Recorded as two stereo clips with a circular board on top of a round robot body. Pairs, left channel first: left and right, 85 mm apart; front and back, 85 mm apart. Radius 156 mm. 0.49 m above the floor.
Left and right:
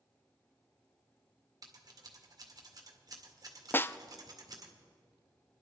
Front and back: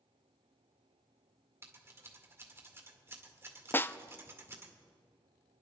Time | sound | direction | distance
1.6 | scissors | 125° right | 1.9 m
3.7 | a snare drum | 45° left | 0.5 m